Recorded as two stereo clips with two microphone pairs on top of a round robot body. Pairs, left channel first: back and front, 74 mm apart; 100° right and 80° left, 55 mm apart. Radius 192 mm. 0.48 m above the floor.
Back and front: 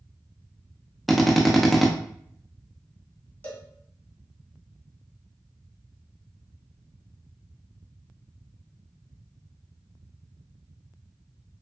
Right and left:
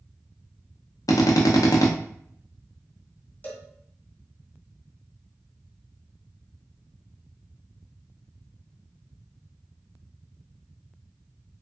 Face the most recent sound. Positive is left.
turn(degrees=-125)